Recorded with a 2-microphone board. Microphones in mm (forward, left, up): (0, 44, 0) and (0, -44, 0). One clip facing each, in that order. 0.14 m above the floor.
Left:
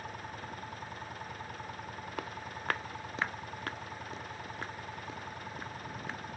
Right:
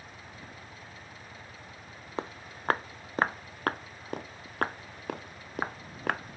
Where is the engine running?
65° left (ahead or behind).